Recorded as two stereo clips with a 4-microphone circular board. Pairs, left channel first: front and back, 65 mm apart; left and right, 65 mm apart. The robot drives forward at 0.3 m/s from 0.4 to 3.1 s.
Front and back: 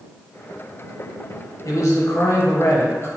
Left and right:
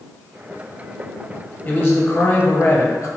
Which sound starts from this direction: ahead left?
A man speaking, at 1.6 s.